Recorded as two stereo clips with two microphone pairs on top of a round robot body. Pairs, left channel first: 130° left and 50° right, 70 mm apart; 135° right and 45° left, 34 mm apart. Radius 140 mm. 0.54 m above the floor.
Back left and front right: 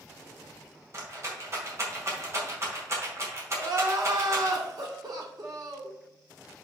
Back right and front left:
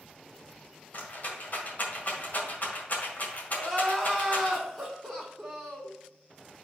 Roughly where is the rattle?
Right.